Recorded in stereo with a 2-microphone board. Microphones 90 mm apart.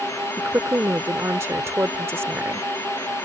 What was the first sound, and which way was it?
A woman speaking, 30° right (ahead or behind).